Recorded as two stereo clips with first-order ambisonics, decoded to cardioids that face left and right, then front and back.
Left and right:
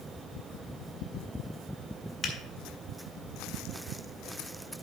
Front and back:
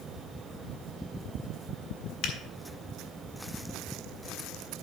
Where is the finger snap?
25° left, 1.8 m.